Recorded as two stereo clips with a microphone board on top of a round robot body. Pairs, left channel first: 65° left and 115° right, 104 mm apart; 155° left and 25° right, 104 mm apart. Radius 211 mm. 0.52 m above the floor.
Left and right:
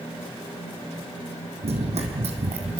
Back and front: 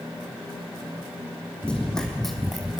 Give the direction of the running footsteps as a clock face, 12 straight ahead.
4 o'clock.